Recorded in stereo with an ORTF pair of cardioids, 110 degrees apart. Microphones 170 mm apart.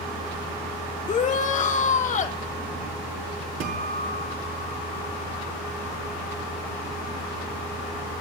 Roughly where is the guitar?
Ahead right.